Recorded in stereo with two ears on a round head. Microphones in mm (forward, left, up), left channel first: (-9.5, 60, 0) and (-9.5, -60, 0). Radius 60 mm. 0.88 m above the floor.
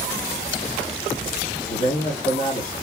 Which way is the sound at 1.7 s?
35° left (ahead or behind).